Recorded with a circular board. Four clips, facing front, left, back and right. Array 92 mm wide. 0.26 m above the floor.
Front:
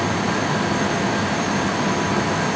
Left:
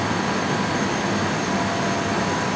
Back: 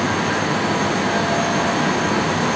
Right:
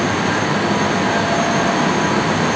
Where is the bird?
I don't hear a bird.